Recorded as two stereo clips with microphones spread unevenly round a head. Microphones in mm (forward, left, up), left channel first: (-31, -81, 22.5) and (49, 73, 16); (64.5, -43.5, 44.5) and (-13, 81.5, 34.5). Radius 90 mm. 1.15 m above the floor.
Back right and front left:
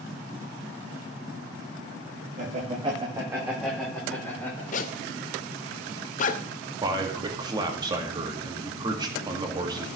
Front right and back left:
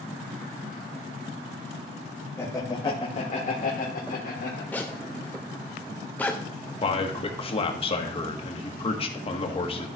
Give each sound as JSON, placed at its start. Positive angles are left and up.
{"t": 2.4, "sound": "laughter", "azimuth_deg": 15, "distance_m": 1.6}
{"t": 4.7, "sound": "a zipper", "azimuth_deg": -130, "distance_m": 0.5}
{"t": 6.8, "sound": "a man speaking", "azimuth_deg": -5, "distance_m": 1.5}